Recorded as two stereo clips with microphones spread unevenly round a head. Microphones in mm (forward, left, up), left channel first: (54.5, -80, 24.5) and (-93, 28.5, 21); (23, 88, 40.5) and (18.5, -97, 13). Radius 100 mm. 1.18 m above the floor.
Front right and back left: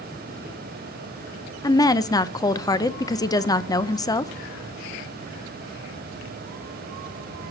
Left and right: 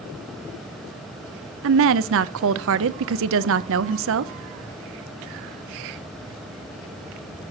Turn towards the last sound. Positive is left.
turn(degrees=-110)